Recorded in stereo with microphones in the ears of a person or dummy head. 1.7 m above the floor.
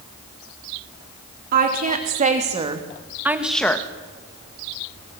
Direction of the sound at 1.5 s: 50° right (ahead or behind).